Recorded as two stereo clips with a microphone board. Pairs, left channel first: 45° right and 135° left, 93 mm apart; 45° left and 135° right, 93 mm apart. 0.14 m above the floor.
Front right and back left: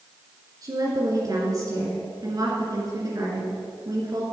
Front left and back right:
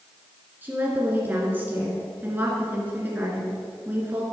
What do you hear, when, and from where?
0.6 s a woman speaking: 160° left, 1.8 m